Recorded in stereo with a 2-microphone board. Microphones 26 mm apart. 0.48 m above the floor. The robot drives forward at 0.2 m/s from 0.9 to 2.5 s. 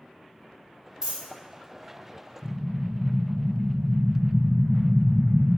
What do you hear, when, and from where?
1.0 s a dropped coin: 25° right (ahead or behind), 0.9 m
2.4 s an explosion: 15° right (ahead or behind), 1.3 m